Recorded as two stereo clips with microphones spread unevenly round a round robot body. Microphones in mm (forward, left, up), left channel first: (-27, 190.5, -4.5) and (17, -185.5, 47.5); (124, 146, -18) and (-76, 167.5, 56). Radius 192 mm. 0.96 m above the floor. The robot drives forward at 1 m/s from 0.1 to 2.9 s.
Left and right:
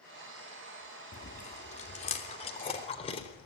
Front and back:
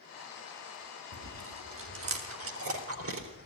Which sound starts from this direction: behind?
Chewing, at 1.1 s.